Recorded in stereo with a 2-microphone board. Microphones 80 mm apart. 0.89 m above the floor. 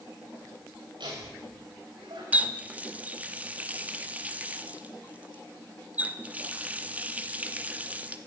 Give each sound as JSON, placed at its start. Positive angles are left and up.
{"t": 1.0, "sound": "laughter", "side_deg": -75, "distance_m": 4.0}
{"t": 2.3, "sound": "a running tap", "side_deg": -15, "distance_m": 0.8}